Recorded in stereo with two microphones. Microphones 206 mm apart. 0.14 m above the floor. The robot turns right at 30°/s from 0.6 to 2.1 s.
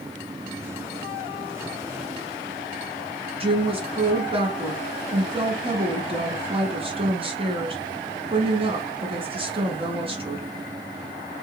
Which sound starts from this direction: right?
A woman speaking, at 3.4 s.